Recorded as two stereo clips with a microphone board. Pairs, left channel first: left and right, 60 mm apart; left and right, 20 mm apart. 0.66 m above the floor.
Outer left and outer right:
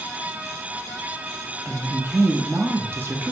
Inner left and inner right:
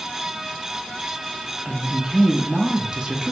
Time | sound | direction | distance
1.6 | a woman speaking | 40° right (ahead or behind) | 0.6 m